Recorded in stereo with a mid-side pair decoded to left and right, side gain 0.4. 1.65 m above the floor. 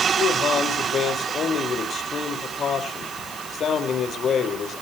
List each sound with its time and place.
0.2 s a man speaking: 60° left, 5 m